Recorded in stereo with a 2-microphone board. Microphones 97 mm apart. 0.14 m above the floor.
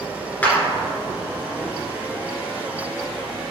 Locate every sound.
0.4 s a clap: 20° left (ahead or behind), 1.9 m